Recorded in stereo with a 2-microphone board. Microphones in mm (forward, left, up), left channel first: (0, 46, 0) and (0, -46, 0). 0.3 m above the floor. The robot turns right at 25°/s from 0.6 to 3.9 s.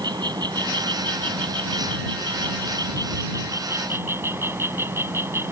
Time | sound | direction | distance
0.0 | an insect | 115° right | ?